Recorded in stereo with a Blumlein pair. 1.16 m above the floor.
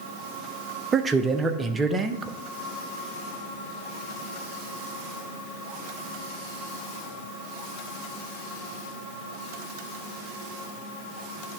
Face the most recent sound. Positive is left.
turn(degrees=-15)